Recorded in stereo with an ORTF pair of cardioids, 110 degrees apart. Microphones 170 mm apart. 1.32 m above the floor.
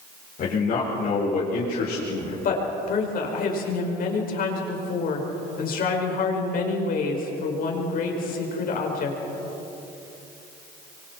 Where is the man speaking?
50° left, 5.5 m; by 2.3 s 60° left, 4 m.